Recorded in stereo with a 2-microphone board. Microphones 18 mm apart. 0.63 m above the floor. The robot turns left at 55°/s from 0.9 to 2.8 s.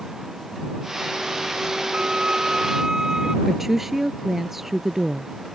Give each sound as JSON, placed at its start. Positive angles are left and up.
{"t": 1.9, "sound": "a violin", "azimuth_deg": -100}
{"t": 3.5, "sound": "a woman speaking", "side_deg": -15}